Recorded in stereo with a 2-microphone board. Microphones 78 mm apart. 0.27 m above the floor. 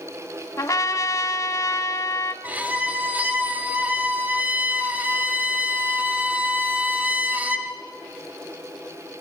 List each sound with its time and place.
0.6 s a trumpet: 45° left (ahead or behind), 0.8 m
2.4 s a violin: 20° right (ahead or behind), 1.0 m